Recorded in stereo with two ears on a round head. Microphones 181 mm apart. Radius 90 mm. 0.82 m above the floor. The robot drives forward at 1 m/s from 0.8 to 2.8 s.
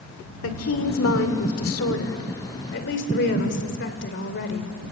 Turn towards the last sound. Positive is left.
turn(degrees=55)  # may be behind; listen again after turning